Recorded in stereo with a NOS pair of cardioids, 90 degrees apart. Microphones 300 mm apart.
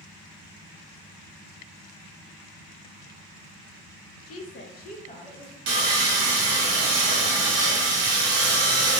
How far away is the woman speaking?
About 0.6 m.